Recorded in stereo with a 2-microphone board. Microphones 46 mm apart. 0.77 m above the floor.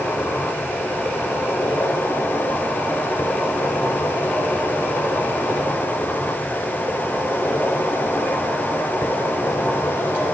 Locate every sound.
0.0 s an insect: 75° left (ahead or behind), 5 m